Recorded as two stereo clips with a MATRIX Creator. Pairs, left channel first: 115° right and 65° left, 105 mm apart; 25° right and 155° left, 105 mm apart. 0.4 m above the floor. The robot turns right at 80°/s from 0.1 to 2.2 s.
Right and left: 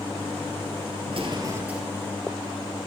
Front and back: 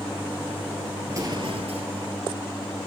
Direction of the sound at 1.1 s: 90° left.